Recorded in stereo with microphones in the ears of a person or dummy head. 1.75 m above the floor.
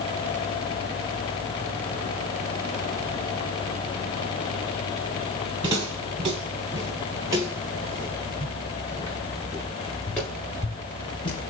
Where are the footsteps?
25° right (ahead or behind), 3 m; by 11.5 s 20° left (ahead or behind), 1.8 m.